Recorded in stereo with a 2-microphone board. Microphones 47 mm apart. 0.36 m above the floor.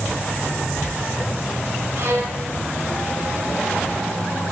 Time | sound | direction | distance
2.0 | a violin | 60° right (ahead or behind) | 1.5 m